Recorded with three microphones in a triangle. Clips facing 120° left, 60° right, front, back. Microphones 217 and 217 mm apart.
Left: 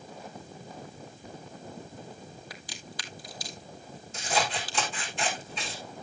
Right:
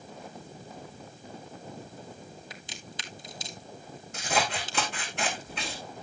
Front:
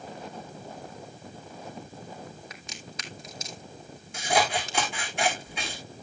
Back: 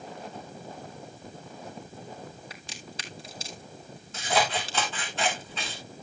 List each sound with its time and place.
2.5 s a crack: 125° right, 1.3 m
4.1 s scissors: 75° right, 4 m